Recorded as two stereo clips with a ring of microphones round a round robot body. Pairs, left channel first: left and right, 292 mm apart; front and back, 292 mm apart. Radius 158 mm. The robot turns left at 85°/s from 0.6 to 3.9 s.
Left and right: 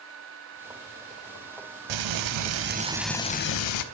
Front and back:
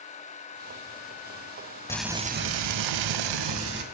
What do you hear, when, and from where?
1.9 s frying: 80° right, 0.5 m; by 3.8 s 115° left, 0.5 m